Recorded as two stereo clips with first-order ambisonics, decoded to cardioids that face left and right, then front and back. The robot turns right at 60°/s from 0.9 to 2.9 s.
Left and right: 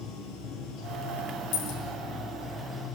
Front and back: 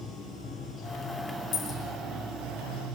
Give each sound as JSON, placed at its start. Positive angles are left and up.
{"t": 0.0, "sound": "running water", "azimuth_deg": 75, "distance_m": 5.5}
{"t": 1.5, "sound": "a dropped coin", "azimuth_deg": 55, "distance_m": 6.0}